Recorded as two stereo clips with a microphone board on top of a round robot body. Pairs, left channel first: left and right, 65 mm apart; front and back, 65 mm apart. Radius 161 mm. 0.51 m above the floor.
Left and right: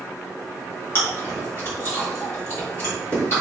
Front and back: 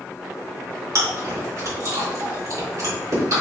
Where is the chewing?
145° left, 3 m.